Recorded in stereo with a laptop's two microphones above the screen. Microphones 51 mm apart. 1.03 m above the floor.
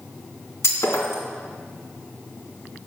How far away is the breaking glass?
About 2.5 m.